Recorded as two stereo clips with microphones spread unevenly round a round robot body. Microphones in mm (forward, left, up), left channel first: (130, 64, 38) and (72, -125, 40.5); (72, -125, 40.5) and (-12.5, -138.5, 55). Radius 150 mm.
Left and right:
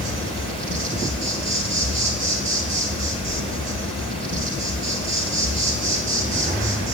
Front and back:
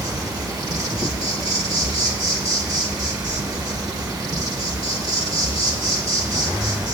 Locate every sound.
0.0 s an insect: 145° right, 1.5 m